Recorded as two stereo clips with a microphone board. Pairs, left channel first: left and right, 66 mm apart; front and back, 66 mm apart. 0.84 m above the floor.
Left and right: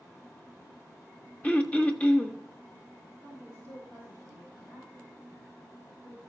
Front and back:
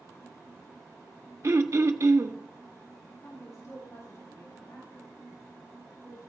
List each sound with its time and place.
1.4 s throat clearing: 155° left, 0.8 m
3.2 s a woman speaking: 35° left, 4.5 m